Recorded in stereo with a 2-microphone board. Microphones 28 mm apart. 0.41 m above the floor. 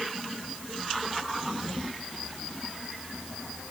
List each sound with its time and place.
Only background noise.